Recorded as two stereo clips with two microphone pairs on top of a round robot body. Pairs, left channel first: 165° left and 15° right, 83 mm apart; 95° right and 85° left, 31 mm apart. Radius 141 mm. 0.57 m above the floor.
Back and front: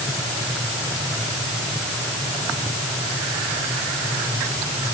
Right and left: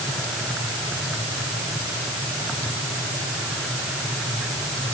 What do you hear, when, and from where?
Only background noise.